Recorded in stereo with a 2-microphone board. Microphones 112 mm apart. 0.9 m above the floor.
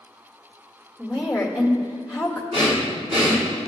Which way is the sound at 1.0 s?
10° right (ahead or behind).